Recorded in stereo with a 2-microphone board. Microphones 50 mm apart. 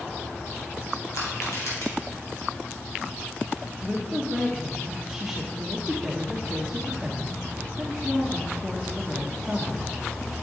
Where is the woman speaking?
10° right (ahead or behind), 0.9 m.